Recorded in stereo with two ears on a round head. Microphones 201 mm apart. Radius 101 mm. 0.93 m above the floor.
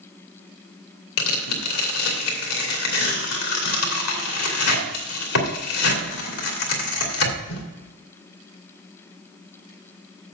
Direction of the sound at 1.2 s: 75° left (ahead or behind).